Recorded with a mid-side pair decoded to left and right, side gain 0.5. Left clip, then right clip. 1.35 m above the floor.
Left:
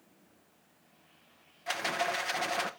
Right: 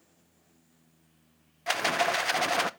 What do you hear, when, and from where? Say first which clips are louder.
1.7 s a rattle: right 5 dB; 45° right, 0.5 m